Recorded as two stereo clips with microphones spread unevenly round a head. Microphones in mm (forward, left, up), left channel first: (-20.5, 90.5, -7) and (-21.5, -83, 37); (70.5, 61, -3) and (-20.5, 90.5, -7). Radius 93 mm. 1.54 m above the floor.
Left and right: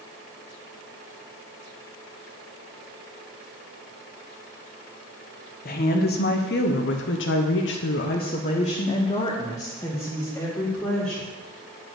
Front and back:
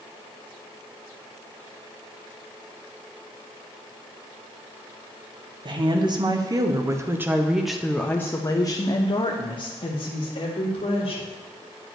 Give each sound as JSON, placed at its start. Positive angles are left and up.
{"t": 5.7, "sound": "a woman speaking", "azimuth_deg": 125, "distance_m": 1.5}